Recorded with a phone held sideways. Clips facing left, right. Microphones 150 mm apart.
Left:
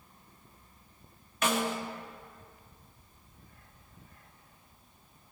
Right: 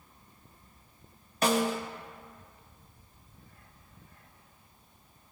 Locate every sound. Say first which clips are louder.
1.4 s a snare drum: right 4 dB; 35° right (ahead or behind), 1.0 m